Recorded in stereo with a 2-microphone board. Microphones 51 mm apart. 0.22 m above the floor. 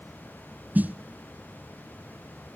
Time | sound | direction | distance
0.8 | a snare drum | 35° right (ahead or behind) | 0.5 m